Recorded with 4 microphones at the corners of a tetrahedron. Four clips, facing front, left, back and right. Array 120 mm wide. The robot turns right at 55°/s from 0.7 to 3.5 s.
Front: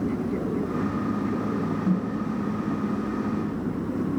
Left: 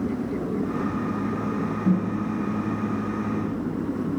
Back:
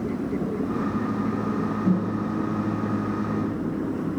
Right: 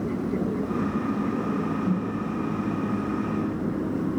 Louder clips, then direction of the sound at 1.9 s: Left 3 dB, back 2 dB; 135° left.